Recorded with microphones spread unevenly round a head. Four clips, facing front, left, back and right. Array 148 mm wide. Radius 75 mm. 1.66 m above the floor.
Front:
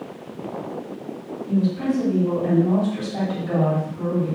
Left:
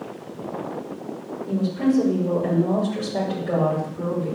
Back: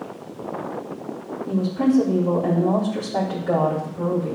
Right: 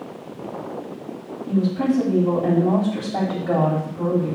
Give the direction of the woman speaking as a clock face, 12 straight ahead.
4 o'clock.